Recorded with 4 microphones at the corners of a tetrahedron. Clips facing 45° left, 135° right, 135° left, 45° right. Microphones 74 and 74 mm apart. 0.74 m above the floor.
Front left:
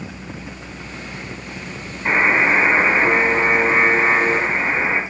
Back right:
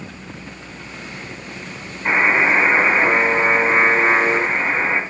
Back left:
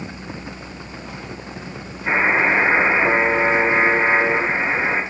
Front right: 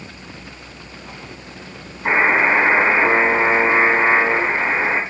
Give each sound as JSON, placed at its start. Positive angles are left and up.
{"t": 2.0, "sound": "a buzzer", "azimuth_deg": -45, "distance_m": 5.0}